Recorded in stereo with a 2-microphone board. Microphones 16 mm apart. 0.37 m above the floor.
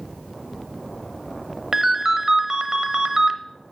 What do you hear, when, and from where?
1.7 s a ringtone: 30° right (ahead or behind), 0.6 m